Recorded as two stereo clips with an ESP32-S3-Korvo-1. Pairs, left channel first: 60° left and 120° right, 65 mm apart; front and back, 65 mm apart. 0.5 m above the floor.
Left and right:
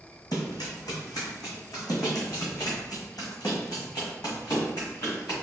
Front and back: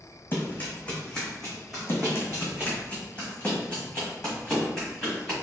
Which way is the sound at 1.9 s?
55° left.